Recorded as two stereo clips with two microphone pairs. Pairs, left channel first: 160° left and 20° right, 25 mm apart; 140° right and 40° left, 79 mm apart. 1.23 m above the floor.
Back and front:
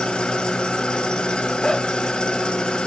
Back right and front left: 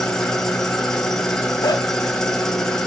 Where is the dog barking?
150° right, 1.4 m.